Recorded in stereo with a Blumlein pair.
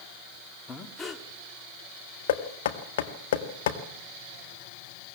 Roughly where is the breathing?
Ahead.